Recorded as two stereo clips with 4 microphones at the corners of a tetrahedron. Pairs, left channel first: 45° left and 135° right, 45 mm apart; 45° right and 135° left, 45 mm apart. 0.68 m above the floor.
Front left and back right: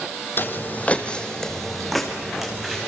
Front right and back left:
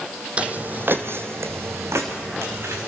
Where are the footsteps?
75° left, 1.6 m; by 2.9 s 145° left, 4 m.